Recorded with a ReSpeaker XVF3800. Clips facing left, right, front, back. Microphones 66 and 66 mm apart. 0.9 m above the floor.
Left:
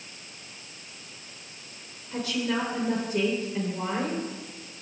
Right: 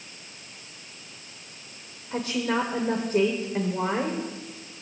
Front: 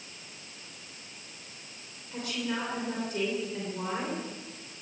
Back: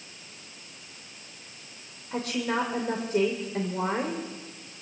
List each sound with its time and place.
2.1 s a woman speaking: 135° right, 3 m